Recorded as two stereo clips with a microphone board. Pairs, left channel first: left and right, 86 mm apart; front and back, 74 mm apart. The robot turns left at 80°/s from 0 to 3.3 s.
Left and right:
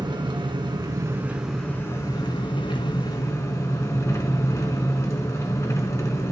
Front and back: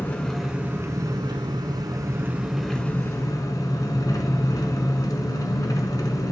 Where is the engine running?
55° right, 1.0 m; by 6.3 s 40° left, 1.0 m.